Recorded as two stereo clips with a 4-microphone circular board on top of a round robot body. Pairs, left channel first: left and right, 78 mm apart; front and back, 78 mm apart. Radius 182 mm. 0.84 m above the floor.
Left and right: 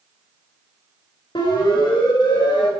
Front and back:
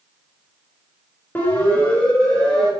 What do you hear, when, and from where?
1.4 s a siren: 65° left, 5 m; by 2.7 s 80° left, 6 m